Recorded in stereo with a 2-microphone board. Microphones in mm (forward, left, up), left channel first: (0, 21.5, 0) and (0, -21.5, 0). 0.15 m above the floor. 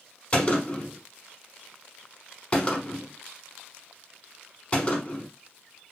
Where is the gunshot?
25° left (ahead or behind), 0.9 m.